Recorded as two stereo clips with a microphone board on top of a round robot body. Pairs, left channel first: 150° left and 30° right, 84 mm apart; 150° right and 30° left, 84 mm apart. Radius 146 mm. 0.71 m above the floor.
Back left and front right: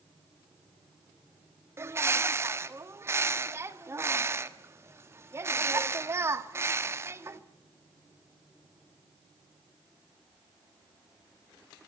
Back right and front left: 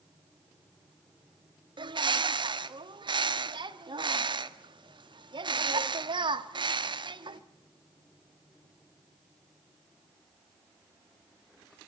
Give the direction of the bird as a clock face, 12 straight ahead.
11 o'clock.